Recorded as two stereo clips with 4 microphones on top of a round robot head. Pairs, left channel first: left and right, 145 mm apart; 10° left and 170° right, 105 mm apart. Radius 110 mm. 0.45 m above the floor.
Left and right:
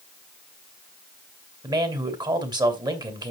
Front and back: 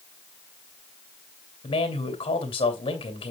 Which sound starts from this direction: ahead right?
A man speaking, at 1.6 s.